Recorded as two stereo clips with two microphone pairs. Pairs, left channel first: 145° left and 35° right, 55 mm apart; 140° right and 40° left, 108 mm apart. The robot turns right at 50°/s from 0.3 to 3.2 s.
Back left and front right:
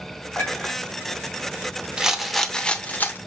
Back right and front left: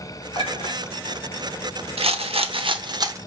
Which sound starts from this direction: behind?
A clink, at 0.3 s.